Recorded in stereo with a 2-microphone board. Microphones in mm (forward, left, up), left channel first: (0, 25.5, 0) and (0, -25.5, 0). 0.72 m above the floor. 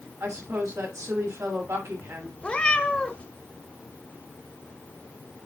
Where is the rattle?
I don't hear a rattle.